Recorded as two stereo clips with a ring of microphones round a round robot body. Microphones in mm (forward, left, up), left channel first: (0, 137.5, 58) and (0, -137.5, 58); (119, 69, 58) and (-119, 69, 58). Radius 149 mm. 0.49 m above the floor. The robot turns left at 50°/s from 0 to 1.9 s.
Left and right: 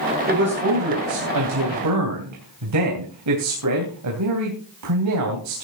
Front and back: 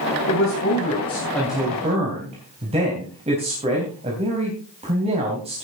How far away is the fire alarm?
No fire alarm in this recording.